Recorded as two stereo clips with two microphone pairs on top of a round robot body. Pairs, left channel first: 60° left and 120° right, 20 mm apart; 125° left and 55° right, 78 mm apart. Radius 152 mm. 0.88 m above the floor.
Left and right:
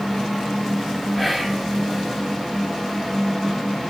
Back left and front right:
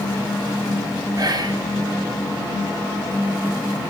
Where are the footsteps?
No footsteps in this recording.